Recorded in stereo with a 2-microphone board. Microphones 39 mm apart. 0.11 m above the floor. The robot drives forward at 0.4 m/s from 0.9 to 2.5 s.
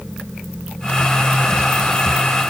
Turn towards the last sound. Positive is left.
No sound to turn to.